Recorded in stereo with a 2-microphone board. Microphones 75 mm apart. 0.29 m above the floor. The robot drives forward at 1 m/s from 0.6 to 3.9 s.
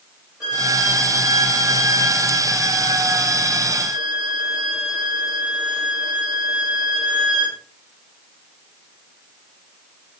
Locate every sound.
0.4 s a violin: 5° right (ahead or behind), 10 m; by 7.6 s 10° right (ahead or behind), 6.5 m